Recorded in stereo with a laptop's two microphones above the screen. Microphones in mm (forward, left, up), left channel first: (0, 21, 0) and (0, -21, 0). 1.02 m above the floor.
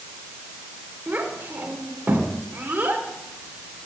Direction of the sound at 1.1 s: 40° right (ahead or behind).